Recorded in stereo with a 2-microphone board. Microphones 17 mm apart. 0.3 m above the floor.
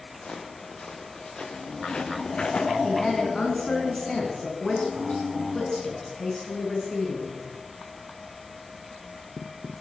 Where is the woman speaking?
50° left (ahead or behind), 4 m.